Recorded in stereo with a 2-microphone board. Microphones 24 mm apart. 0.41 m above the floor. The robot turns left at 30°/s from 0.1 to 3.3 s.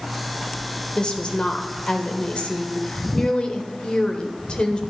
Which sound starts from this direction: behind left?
A woman speaking, at 0.9 s.